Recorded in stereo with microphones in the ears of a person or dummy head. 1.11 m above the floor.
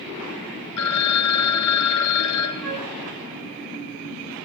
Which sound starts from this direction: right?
A flute, at 2.6 s.